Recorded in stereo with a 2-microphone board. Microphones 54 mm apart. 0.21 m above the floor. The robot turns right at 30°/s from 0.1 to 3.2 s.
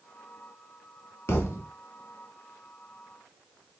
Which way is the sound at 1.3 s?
55° left (ahead or behind).